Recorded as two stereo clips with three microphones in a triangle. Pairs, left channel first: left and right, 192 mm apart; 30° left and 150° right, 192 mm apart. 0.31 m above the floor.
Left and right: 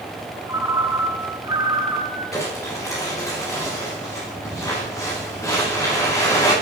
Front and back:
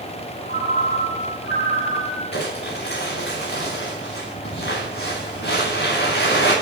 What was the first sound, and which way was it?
A ringtone, 160° right.